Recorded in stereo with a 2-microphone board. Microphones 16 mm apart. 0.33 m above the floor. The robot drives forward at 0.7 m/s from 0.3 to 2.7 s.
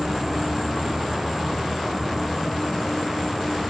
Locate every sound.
0.0 s an insect: 15° right (ahead or behind), 2 m; by 3.7 s 10° right (ahead or behind), 3.5 m